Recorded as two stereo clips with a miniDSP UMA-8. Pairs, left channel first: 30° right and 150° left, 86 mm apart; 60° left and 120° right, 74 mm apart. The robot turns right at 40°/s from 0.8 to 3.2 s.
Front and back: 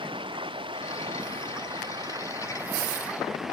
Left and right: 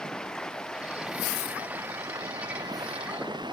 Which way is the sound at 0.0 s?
140° left.